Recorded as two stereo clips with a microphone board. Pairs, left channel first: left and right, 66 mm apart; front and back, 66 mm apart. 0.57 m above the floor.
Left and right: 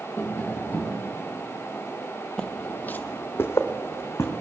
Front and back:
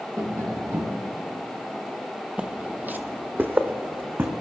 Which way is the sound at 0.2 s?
150° left.